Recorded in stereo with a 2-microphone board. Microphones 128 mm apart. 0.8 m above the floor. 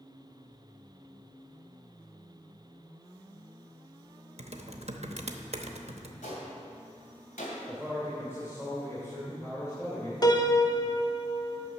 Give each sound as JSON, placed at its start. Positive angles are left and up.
{"t": 4.4, "sound": "typing on a keyboard", "side_deg": -55, "distance_m": 0.8}
{"t": 6.2, "sound": "a gunshot", "side_deg": 80, "distance_m": 2.5}
{"t": 7.7, "sound": "a man speaking", "side_deg": 25, "distance_m": 2.5}
{"t": 10.2, "sound": "a piano", "side_deg": 35, "distance_m": 0.6}